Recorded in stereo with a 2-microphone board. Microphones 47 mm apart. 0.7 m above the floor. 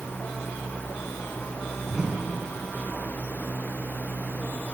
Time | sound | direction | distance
1.9 | a whoosh | 15° right (ahead or behind) | 4.5 m